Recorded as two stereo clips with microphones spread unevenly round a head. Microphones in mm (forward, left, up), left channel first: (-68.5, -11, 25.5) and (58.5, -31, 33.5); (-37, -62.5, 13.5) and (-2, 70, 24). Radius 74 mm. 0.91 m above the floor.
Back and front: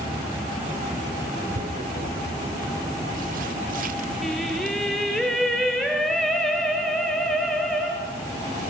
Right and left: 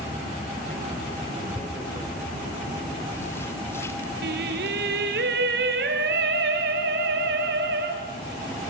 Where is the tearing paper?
30° right, 1.8 m.